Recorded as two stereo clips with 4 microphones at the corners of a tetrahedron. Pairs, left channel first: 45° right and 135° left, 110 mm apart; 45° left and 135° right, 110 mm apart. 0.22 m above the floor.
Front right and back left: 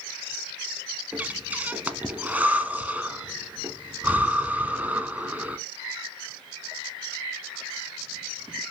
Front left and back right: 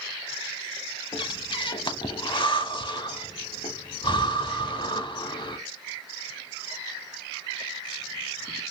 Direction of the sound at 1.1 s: 65° left.